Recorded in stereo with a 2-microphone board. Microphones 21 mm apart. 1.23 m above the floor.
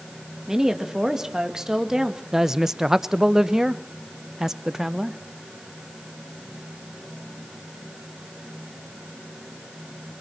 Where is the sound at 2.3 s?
20° right (ahead or behind), 0.9 m.